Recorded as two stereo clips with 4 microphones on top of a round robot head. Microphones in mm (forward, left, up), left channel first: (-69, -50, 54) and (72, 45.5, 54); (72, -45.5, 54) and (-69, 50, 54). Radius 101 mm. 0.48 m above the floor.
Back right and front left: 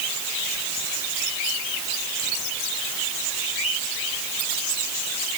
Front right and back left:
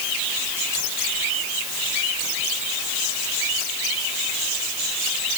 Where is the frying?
I don't hear frying.